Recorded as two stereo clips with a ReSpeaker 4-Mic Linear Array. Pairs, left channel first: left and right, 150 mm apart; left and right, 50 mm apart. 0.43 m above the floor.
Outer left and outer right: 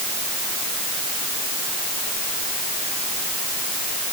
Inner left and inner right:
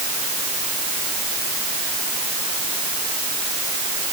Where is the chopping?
I don't hear chopping.